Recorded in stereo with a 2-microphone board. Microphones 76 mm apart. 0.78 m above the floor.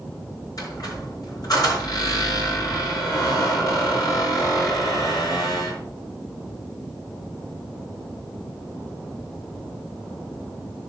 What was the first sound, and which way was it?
A squeak, 55° left (ahead or behind).